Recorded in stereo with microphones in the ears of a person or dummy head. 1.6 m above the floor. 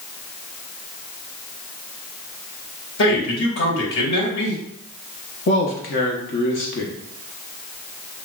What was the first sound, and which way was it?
A man speaking, 60° left (ahead or behind).